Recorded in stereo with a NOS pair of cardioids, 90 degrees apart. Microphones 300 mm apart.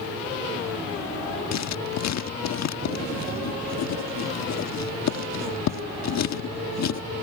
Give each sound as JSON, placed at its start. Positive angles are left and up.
{"t": 1.5, "sound": "writing", "azimuth_deg": 60}